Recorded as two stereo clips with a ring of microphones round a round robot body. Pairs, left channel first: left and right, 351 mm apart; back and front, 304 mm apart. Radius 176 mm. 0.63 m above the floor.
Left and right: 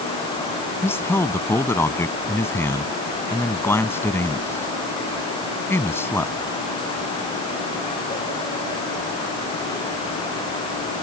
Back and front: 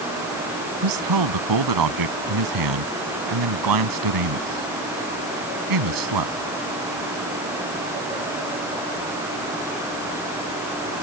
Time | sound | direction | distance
0.8 | a man speaking | 5° left | ?